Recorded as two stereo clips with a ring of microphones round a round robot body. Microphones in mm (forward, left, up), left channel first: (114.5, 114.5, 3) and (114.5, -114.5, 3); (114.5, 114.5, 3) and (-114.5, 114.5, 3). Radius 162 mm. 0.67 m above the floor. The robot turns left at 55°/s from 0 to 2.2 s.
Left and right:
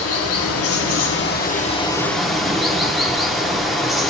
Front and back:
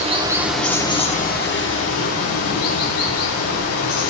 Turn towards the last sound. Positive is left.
turn(degrees=0)